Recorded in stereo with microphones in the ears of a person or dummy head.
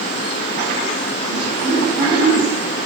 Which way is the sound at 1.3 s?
60° right (ahead or behind).